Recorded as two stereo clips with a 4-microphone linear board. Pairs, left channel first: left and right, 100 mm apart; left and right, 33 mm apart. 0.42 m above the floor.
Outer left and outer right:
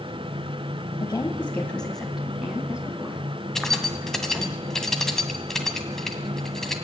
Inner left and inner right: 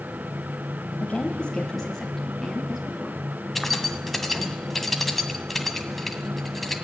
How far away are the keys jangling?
About 2 m.